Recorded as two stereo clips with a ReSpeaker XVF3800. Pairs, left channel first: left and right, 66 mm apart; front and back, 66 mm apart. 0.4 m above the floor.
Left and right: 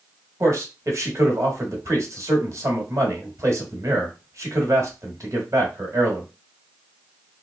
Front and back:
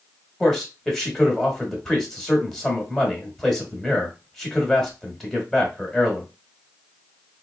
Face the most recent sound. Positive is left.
turn(degrees=-85)